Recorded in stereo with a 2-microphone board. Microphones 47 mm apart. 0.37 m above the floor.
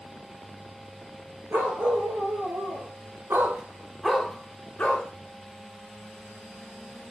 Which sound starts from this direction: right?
A dog barking, at 1.5 s.